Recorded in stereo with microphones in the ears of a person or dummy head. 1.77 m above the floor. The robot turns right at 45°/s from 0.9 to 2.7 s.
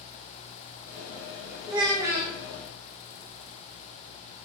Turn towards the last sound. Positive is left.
turn(degrees=0)